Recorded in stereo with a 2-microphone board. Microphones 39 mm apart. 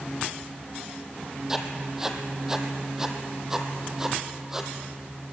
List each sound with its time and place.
1.5 s writing: 10° right (ahead or behind), 2 m